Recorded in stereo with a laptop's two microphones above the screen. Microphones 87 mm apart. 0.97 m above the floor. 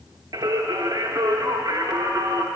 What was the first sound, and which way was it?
Singing, 45° right (ahead or behind).